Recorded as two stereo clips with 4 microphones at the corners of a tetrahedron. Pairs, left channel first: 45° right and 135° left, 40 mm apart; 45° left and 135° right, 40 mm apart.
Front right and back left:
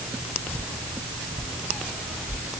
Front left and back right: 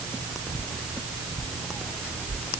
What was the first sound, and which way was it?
Only background noise.